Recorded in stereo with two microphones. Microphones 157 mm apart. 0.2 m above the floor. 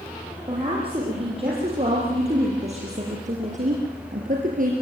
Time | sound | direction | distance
0.5 | a woman speaking | 35° right (ahead or behind) | 7 m